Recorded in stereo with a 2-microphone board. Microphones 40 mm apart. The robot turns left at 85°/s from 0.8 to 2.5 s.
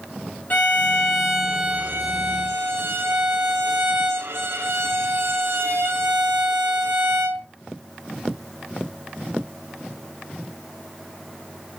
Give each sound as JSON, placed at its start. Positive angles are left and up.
{"t": 0.5, "sound": "a violin", "azimuth_deg": 45, "distance_m": 3.5}